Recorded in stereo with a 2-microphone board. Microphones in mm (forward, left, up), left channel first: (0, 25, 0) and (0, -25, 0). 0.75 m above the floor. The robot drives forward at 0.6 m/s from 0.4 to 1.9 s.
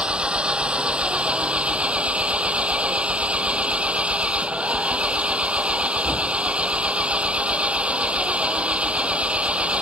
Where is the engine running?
20° right (ahead or behind); by 9.8 s 25° right (ahead or behind).